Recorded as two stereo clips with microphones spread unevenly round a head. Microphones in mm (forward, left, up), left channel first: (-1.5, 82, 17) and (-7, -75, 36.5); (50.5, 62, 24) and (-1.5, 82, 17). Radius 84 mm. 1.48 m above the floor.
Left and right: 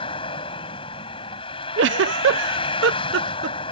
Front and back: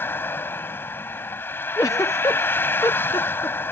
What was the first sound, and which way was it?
A vehicle, 25° left.